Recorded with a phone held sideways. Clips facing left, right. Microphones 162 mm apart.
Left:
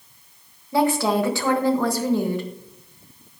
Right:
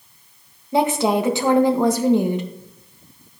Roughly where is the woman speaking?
Centre.